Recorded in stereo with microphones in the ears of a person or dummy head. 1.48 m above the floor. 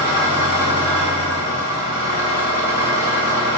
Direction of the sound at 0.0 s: 35° left (ahead or behind).